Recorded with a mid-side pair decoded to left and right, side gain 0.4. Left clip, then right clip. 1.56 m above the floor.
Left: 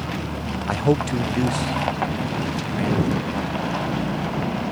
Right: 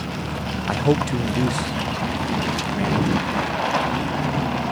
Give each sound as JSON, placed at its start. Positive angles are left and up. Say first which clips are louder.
{"t": 0.7, "sound": "a man speaking", "louder": "even", "azimuth_deg": 5}